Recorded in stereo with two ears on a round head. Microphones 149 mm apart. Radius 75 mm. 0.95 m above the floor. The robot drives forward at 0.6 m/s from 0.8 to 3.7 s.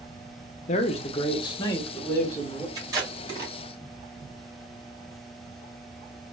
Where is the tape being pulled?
25° right (ahead or behind), 2 m; by 3.5 s 20° right (ahead or behind), 2.5 m.